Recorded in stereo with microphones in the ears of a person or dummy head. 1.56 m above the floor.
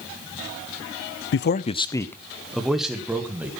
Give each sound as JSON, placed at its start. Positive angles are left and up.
{"t": 1.3, "sound": "a man speaking", "side_deg": 60, "distance_m": 0.5}